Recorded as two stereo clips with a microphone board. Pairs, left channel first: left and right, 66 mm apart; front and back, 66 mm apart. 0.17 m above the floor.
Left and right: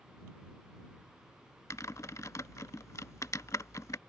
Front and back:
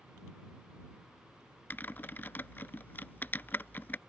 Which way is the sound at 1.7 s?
55° left.